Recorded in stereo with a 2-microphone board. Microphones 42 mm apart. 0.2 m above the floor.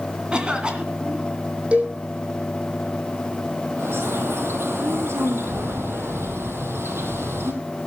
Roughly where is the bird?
Right.